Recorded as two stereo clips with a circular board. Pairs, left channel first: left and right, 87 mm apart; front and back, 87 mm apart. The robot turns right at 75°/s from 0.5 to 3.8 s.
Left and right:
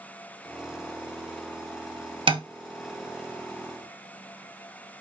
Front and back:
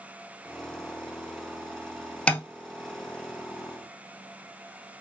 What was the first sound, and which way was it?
Tapping, 75° right.